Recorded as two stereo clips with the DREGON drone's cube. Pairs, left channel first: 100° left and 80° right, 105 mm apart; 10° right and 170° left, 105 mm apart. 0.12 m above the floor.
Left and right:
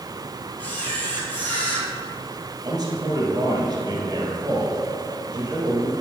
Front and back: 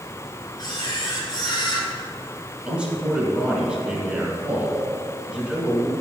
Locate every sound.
0.6 s a camera shutter: 30° left, 2.5 m
2.6 s a man speaking: 115° right, 1.9 m